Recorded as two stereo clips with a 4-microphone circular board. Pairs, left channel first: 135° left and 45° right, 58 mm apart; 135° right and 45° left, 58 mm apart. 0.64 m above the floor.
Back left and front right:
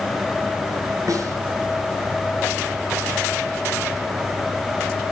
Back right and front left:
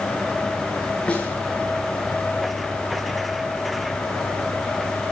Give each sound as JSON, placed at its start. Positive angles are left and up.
{"t": 1.1, "sound": "a snare drum", "azimuth_deg": -65, "distance_m": 4.5}